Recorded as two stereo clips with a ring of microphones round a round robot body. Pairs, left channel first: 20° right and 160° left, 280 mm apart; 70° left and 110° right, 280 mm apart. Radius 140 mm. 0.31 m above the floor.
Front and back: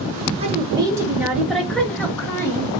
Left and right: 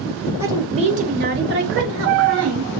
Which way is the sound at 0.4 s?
Straight behind.